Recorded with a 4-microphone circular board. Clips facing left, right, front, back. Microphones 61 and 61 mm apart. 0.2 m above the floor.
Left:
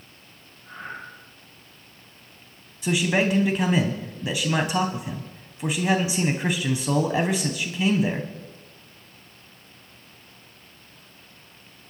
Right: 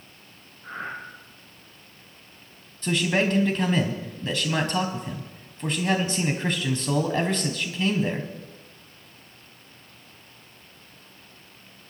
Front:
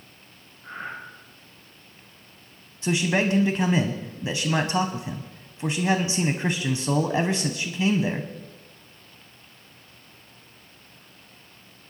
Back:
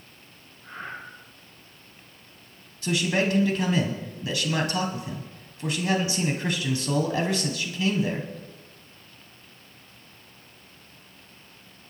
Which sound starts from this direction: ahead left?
A man speaking, at 2.8 s.